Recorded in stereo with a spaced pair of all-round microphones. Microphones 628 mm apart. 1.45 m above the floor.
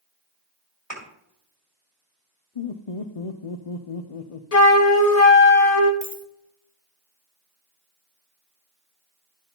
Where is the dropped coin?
20° right (ahead or behind), 1.8 m.